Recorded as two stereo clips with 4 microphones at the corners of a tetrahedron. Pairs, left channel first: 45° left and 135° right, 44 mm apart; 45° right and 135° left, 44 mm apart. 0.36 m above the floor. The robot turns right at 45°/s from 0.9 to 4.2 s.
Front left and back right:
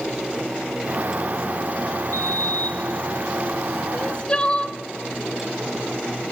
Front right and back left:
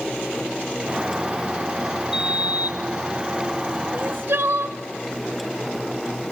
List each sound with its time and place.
2.1 s a sliding door: 65° left, 1.0 m; by 3.8 s 140° left, 1.0 m
3.9 s crying: 100° left, 0.6 m; by 4.8 s 110° left, 0.6 m